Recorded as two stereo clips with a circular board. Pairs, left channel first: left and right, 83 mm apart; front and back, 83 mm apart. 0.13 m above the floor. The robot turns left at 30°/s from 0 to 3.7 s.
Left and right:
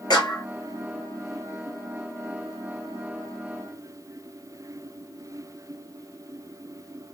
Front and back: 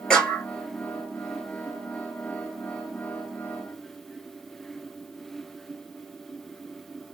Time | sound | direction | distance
0.1 | a clap | 80° left | 1.9 m